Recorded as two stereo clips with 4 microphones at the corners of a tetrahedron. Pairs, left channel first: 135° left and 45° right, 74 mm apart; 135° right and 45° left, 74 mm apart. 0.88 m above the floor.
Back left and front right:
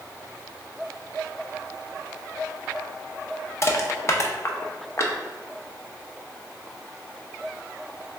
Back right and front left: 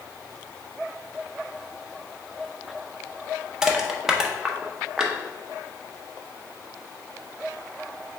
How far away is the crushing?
About 0.5 m.